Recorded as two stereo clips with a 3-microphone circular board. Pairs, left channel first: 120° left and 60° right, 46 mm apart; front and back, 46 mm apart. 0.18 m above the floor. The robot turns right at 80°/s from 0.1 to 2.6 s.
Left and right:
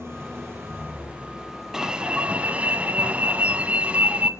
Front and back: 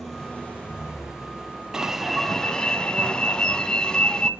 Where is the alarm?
125° right, 0.8 m; by 4.3 s 55° right, 0.8 m.